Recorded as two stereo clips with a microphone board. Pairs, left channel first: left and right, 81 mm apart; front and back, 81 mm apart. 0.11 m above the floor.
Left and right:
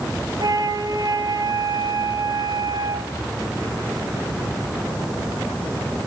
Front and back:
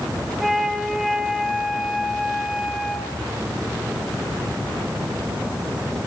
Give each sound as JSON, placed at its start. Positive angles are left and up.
{"t": 0.4, "sound": "a flute", "azimuth_deg": -95, "distance_m": 1.9}